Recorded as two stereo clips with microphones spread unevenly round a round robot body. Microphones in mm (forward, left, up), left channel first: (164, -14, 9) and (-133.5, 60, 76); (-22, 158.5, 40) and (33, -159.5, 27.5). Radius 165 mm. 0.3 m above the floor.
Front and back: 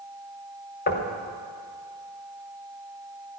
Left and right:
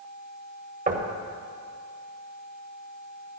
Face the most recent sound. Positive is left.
turn(degrees=-30)